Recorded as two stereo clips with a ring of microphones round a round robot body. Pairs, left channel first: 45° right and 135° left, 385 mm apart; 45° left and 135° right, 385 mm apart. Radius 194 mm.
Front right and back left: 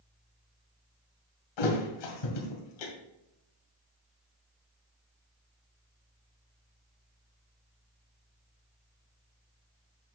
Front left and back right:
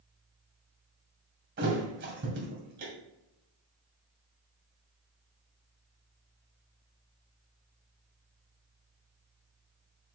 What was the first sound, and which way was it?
A thud, 70° right.